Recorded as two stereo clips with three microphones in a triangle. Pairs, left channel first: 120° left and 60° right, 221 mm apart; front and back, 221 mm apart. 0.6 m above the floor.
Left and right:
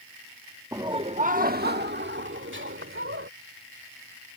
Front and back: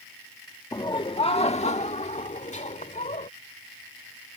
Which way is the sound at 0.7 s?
20° right.